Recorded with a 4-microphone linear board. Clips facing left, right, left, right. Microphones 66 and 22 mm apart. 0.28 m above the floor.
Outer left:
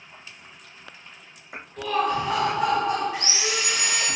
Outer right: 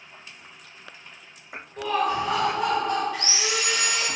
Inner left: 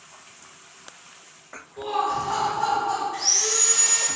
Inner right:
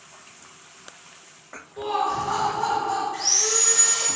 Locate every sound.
1.8 s laughter: 25° right (ahead or behind), 1.0 m; by 3.0 s 20° left (ahead or behind), 1.7 m
3.1 s sawing: 20° left (ahead or behind), 1.6 m